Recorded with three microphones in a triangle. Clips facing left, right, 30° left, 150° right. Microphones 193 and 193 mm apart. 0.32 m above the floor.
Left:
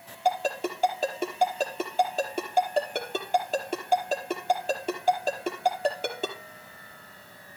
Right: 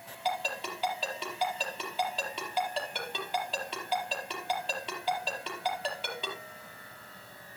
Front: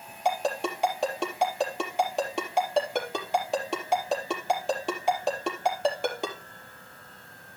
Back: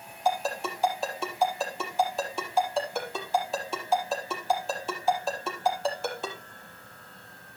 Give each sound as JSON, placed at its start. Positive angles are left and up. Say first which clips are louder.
{"t": 0.2, "sound": "a ringtone", "louder": "left 8 dB, front 1 dB", "azimuth_deg": 45, "distance_m": 4.5}